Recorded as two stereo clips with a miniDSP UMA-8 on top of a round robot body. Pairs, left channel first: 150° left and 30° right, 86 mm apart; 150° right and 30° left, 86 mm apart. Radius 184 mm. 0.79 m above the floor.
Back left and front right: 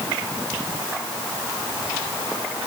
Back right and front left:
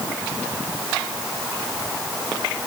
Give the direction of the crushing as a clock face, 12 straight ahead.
I don't hear crushing.